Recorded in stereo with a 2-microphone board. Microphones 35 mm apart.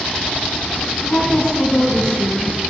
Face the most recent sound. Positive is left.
turn(degrees=50)  # may be behind; listen again after turning